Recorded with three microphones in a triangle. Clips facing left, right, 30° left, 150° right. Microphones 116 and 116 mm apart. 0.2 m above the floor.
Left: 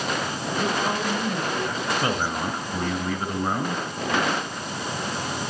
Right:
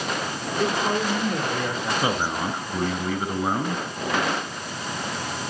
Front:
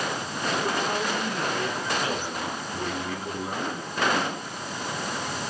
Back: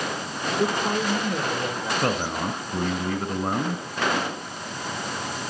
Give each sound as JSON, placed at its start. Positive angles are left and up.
{"t": 0.6, "sound": "a man speaking", "azimuth_deg": -110, "distance_m": 9.5}
{"t": 2.0, "sound": "a man speaking", "azimuth_deg": -165, "distance_m": 2.0}